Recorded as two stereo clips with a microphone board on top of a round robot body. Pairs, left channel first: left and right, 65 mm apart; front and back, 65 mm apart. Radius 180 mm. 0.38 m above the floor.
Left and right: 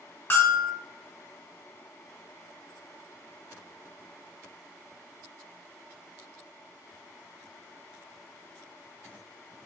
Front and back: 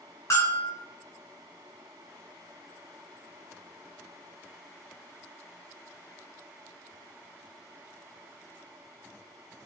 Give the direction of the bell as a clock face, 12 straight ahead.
11 o'clock.